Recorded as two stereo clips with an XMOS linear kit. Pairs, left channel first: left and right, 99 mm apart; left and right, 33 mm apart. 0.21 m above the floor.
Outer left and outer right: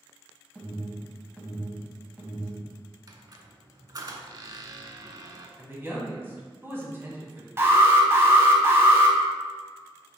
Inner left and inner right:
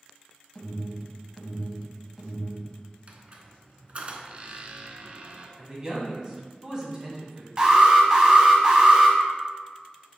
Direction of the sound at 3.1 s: 40° right (ahead or behind).